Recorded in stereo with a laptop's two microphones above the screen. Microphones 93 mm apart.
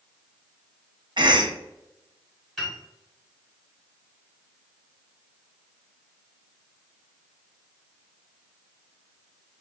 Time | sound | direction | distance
1.2 | a cough | 55° right (ahead or behind) | 0.8 m
2.6 | a piano | 5° left (ahead or behind) | 1.5 m